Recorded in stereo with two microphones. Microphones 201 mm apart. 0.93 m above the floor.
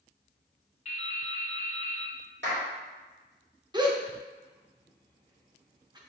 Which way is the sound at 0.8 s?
35° left (ahead or behind).